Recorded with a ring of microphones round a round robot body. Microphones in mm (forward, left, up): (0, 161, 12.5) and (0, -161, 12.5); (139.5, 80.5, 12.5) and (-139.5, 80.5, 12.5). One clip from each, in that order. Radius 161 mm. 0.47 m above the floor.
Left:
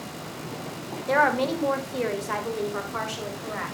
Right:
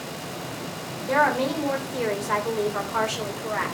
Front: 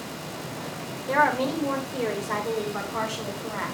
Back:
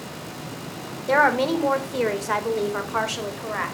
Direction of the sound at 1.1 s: 155° left.